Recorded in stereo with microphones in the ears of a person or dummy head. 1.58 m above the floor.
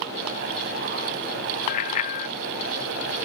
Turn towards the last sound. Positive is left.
turn(degrees=45)  # may be behind; listen again after turning